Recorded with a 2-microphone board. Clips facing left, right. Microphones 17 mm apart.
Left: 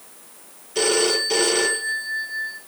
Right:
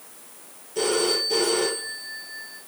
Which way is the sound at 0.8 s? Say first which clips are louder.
Left 3 dB; 50° left (ahead or behind).